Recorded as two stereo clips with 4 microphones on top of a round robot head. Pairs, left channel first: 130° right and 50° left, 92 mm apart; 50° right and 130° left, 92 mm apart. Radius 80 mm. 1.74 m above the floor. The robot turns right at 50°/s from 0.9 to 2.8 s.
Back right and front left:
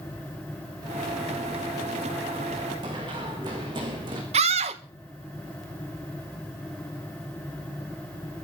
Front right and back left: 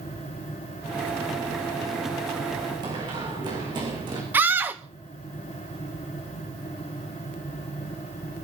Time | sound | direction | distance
2.8 | running footsteps | 90° left | 7 m
4.3 | a scream | 60° left | 1.6 m